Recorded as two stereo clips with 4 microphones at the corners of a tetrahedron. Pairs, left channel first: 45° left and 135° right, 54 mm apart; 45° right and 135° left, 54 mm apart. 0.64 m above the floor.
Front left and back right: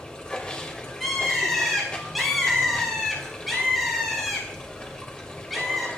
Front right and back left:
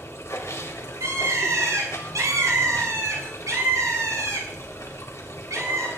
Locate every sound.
0.0 s running water: 25° right, 2.0 m
1.0 s a bird: 135° left, 6.5 m